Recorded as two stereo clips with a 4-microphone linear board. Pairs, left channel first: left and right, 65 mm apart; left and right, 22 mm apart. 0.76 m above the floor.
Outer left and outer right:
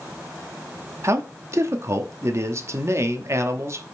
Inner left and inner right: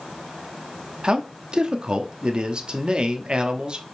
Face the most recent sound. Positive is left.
turn(degrees=-45)  # may be behind; listen again after turning